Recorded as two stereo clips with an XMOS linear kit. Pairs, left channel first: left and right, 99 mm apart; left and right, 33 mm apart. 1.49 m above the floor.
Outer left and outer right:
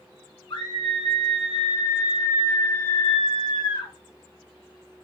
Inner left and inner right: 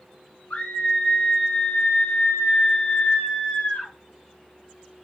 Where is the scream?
55° left (ahead or behind), 1.1 m.